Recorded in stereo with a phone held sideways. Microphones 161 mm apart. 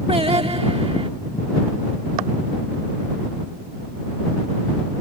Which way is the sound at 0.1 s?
35° right (ahead or behind).